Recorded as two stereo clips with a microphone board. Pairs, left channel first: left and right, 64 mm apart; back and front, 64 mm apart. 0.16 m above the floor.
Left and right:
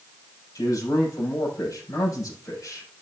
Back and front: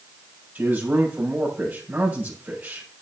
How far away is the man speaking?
About 5.5 m.